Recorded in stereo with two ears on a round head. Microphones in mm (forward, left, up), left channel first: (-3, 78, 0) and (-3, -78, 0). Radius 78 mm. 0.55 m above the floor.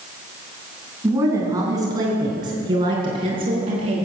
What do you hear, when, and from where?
1.0 s a woman speaking: 20° right (ahead or behind), 4 m; by 4.0 s 35° right (ahead or behind), 5.5 m